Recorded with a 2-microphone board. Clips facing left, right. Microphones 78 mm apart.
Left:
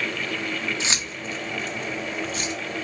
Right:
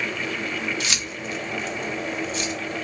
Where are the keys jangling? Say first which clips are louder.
Even; 25° left (ahead or behind), 0.6 m; by 2.5 s 45° left (ahead or behind), 1.3 m.